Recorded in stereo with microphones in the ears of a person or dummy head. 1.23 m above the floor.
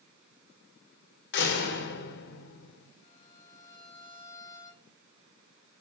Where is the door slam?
60° left (ahead or behind), 2.5 m.